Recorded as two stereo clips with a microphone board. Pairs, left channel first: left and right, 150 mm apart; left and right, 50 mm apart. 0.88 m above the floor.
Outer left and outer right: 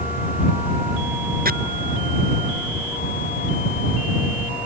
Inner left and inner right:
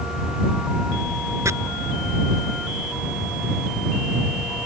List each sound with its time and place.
1.4 s chopping: 75° right (ahead or behind)